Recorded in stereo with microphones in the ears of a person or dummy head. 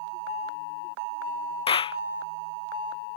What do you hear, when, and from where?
1.7 s a clap: 30° left (ahead or behind)